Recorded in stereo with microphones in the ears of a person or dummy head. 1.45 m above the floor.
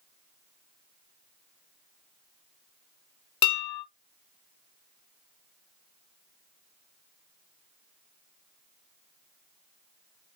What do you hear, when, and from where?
3.4 s dishes clattering: 25° left (ahead or behind), 0.7 m